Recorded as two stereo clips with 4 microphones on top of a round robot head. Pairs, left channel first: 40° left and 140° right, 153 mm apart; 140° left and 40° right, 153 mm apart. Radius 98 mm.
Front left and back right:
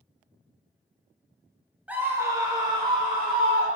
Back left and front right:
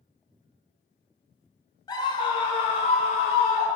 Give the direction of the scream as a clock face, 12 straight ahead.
7 o'clock.